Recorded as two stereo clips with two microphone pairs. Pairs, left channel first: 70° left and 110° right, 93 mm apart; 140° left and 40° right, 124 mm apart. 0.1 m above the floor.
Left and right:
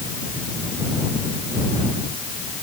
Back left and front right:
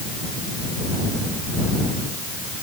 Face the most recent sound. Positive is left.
No sound to turn to.